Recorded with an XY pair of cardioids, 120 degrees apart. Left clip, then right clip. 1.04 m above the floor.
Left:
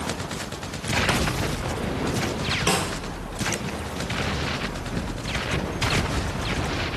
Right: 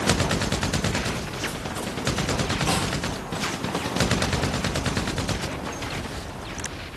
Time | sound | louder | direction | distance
2.7 | a snare drum | left 3 dB | 25° left | 8.5 m